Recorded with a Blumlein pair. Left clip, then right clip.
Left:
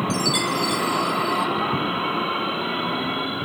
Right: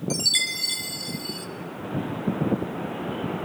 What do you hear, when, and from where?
0.1 s a chime: 10° right, 2 m